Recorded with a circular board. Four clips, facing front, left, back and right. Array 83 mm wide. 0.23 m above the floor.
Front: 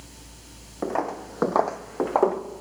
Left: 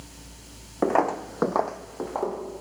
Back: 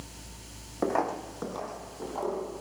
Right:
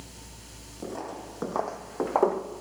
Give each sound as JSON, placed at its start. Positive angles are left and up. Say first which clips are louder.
{"t": 0.8, "sound": "footsteps", "louder": "left 14 dB, front 1 dB", "azimuth_deg": 95, "distance_m": 1.1}